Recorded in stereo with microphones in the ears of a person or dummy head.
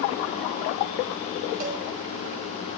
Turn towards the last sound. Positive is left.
turn(degrees=-40)  # may be behind; listen again after turning